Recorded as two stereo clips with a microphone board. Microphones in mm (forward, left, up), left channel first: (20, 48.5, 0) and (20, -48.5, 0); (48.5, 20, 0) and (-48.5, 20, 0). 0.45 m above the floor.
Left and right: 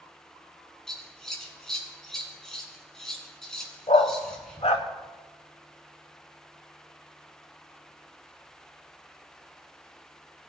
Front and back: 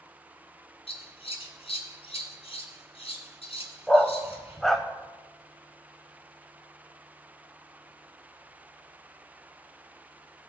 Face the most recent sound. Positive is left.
turn(degrees=90)